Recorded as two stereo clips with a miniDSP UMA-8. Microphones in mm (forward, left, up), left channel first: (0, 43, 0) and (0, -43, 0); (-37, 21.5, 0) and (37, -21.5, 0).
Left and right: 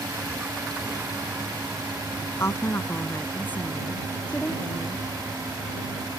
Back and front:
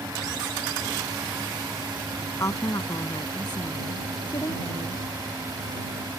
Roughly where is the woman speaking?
Behind left.